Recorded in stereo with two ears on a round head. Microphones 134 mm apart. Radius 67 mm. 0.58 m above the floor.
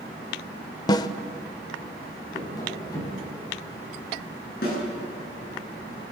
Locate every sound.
0.9 s a snare drum: 25° left (ahead or behind), 0.9 m
2.3 s tapping: 25° left (ahead or behind), 4 m
4.6 s a snare drum: 70° left (ahead or behind), 9.5 m